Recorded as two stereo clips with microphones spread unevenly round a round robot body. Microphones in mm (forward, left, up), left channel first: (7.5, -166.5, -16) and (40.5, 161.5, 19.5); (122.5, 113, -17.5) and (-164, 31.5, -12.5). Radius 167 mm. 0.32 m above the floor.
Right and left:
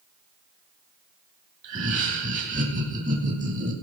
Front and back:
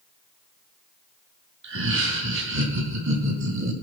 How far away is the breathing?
I don't hear breathing.